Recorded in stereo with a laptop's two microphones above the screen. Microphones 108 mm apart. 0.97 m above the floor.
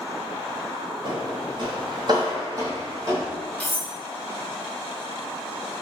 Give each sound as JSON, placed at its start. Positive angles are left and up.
{"t": 1.1, "sound": "footsteps", "side_deg": -55, "distance_m": 1.6}
{"t": 3.6, "sound": "cutlery clinking", "side_deg": 10, "distance_m": 0.8}